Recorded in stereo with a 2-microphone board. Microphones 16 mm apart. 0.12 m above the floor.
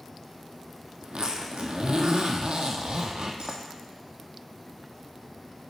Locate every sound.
1.0 s a zipper: 75° right (ahead or behind), 0.8 m